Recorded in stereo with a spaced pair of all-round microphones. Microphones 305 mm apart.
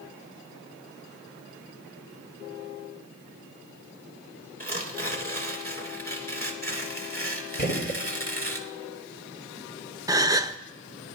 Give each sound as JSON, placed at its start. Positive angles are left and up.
{"t": 4.6, "sound": "tearing paper", "side_deg": -30, "distance_m": 1.8}
{"t": 7.6, "sound": "a gunshot", "side_deg": 35, "distance_m": 2.0}
{"t": 10.1, "sound": "a gasp", "side_deg": -10, "distance_m": 0.5}